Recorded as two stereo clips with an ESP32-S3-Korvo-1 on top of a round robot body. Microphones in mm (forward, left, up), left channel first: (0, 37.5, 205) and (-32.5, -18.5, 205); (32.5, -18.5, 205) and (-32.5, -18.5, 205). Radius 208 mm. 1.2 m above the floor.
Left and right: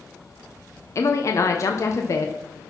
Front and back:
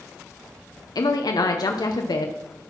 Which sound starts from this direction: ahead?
A woman speaking, at 0.9 s.